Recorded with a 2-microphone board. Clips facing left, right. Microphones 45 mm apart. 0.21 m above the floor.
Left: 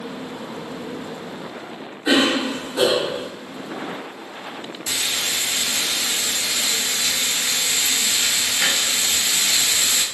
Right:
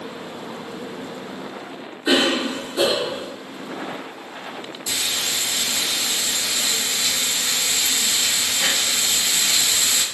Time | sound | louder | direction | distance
2.0 | a cough | left 1 dB | 25° left (ahead or behind) | 1.7 m
4.9 | frying | left 1 dB | 55° left (ahead or behind) | 1.1 m